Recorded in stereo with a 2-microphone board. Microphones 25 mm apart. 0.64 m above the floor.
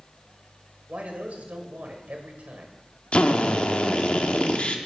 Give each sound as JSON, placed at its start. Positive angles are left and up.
{"t": 0.9, "sound": "a man speaking", "side_deg": -70, "distance_m": 2.5}
{"t": 3.1, "sound": "a drill", "side_deg": 55, "distance_m": 1.0}